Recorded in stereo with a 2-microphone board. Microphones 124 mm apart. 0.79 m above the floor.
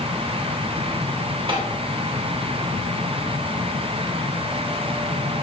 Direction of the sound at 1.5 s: 45° right (ahead or behind).